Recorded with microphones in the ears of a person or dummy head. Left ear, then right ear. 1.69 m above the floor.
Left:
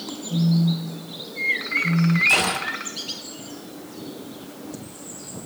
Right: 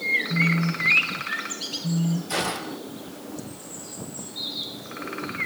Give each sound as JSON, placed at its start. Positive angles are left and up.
{"t": 0.3, "sound": "a phone buzzing", "side_deg": -15, "distance_m": 0.6}
{"t": 2.3, "sound": "a gunshot", "side_deg": 50, "distance_m": 2.0}